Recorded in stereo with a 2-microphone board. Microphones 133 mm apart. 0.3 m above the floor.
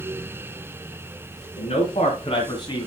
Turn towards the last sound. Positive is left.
turn(degrees=30)  # may be behind; listen again after turning